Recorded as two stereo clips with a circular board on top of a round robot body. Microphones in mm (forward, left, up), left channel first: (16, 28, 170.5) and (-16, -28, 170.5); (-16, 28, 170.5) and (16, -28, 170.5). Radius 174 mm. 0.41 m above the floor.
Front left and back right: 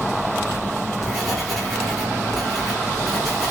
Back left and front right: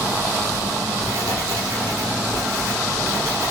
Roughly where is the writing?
Ahead right.